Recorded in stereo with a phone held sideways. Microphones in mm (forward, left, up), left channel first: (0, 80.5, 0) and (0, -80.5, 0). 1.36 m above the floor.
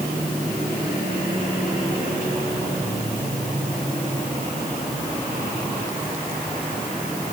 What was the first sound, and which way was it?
Only background noise.